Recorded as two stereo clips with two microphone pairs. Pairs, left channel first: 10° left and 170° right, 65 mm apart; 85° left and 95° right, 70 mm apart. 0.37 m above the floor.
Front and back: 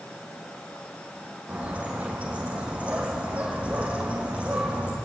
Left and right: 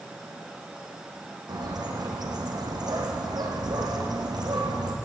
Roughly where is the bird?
Right.